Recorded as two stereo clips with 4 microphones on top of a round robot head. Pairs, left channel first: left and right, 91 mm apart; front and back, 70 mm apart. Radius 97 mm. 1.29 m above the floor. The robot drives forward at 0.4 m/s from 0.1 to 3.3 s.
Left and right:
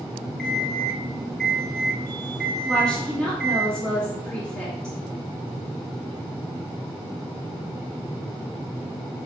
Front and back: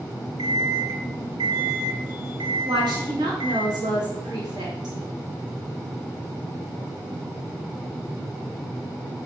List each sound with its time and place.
0.4 s an alarm clock: 175° left, 0.7 m; by 3.7 s straight behind, 1.8 m
2.7 s a woman speaking: 170° left, 2.5 m; by 5.0 s 175° left, 2.5 m